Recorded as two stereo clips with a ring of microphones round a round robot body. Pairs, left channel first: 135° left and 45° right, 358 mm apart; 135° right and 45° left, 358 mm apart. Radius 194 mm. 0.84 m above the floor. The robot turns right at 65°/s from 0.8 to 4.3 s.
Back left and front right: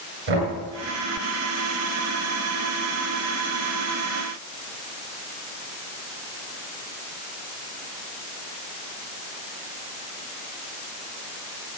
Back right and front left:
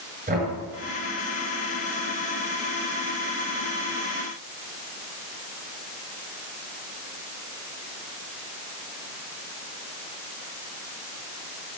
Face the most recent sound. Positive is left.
turn(degrees=-155)